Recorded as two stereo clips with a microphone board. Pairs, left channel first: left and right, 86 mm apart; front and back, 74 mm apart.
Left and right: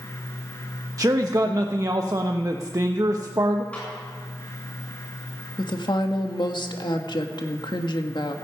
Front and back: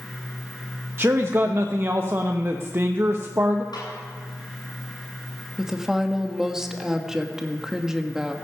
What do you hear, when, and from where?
1.0 s a man speaking: 130° right, 1.0 m
3.7 s a snare drum: 15° left, 8 m
5.6 s a woman speaking: 100° left, 1.8 m